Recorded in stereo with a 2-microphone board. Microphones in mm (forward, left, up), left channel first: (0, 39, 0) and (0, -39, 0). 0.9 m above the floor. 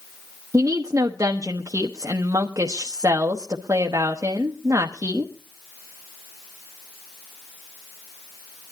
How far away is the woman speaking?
About 1.0 m.